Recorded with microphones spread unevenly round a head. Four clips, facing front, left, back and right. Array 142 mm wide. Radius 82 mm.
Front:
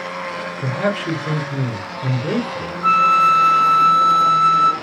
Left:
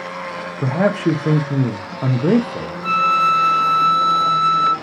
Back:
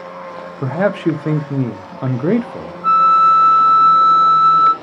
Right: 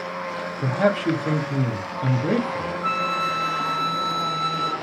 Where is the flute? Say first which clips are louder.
Left 10 dB, back 3 dB; 10° left, 0.9 m.